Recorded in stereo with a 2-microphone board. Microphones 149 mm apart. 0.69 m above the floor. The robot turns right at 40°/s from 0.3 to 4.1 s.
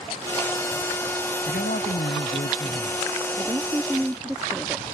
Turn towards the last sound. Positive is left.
turn(degrees=-5)  # may be behind; listen again after turning